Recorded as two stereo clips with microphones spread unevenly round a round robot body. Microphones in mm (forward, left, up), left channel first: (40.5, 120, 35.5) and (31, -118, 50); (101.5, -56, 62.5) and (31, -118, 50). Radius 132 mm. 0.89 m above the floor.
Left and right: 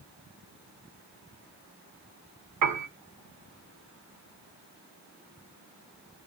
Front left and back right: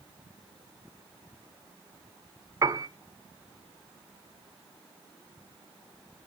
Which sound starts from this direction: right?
A piano, at 2.6 s.